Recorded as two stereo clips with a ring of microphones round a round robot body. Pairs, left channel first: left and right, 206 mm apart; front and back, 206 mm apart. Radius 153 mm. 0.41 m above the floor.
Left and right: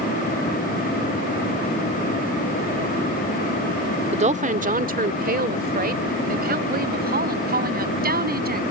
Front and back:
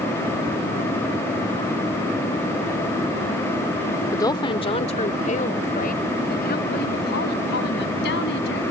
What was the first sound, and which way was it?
A woman speaking, 65° right.